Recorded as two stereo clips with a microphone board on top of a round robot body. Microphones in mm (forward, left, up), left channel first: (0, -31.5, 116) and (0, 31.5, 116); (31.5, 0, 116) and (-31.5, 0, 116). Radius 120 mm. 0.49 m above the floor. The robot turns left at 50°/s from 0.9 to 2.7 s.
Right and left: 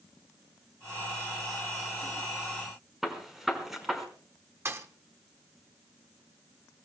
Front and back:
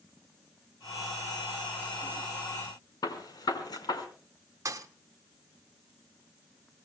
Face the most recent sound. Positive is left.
turn(degrees=140)